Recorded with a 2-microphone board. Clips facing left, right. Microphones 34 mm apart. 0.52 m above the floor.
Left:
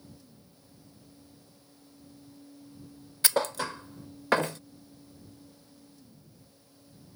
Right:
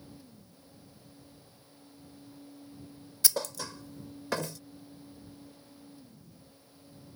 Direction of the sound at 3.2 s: 45° left (ahead or behind).